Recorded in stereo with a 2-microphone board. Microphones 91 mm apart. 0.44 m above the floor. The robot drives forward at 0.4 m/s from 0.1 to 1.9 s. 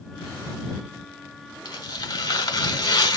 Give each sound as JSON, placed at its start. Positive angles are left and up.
{"t": 1.6, "sound": "tearing paper", "side_deg": 45, "distance_m": 1.6}